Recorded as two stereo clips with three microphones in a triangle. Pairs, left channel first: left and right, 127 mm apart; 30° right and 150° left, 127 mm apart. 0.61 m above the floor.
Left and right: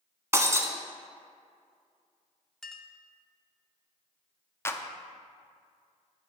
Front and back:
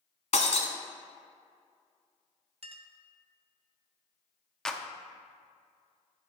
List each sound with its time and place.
0.3 s breaking glass: 25° right, 0.9 m
2.6 s a clink: 175° left, 0.6 m
4.7 s a clap: 50° left, 0.5 m